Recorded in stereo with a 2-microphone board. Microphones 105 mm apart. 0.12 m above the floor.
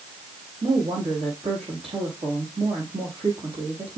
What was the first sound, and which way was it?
A woman speaking, 75° right (ahead or behind).